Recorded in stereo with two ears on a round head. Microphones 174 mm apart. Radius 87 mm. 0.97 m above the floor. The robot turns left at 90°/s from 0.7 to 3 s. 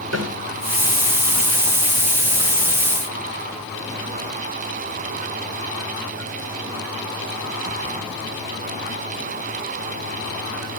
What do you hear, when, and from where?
0.1 s a snare drum: 75° right (ahead or behind), 8.5 m